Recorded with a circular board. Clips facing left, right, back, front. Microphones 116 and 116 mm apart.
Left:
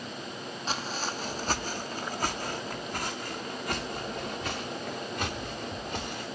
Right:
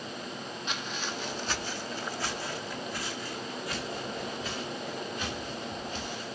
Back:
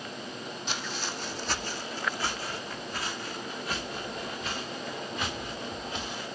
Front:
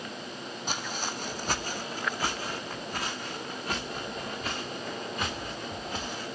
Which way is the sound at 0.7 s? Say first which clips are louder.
Left 4 dB, front 2 dB; 35° left.